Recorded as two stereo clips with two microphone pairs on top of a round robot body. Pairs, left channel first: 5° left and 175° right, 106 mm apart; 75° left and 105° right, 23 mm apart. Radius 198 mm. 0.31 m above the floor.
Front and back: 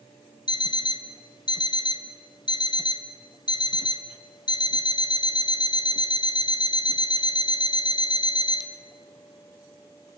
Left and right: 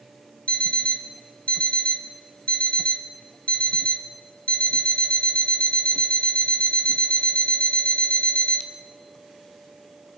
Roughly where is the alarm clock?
Ahead left.